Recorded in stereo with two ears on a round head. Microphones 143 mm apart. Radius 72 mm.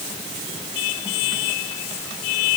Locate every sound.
Only background noise.